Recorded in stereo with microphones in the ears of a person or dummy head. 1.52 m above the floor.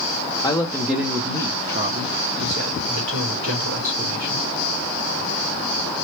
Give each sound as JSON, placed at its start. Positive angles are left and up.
{"t": 0.4, "sound": "a woman speaking", "side_deg": 25, "distance_m": 0.7}